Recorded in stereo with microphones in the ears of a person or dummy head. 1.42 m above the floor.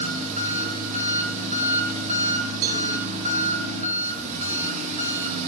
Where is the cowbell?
50° right (ahead or behind), 1.5 m.